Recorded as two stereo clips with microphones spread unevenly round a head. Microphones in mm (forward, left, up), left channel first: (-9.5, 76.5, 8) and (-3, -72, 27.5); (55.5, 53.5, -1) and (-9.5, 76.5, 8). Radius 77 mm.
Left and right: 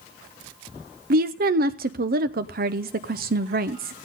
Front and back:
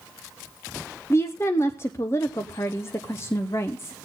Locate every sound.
1.1 s a woman speaking: 70° right, 0.6 m